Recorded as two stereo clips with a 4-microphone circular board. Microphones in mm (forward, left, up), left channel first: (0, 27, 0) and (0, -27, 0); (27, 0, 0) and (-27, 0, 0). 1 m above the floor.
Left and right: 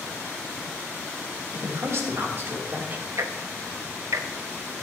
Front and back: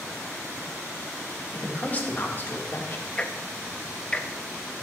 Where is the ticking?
70° right, 0.8 m.